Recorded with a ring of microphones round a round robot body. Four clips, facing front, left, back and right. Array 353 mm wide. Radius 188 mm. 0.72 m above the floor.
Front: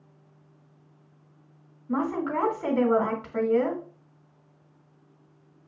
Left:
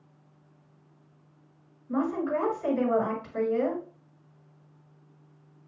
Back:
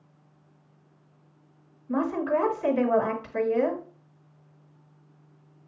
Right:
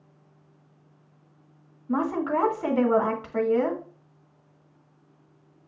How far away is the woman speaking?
About 2.0 m.